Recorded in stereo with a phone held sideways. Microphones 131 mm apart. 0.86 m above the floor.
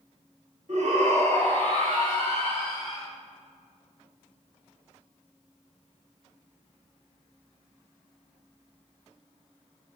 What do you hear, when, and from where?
0.7 s a shout: 65° right (ahead or behind), 2 m; by 3.1 s 45° right (ahead or behind), 3.5 m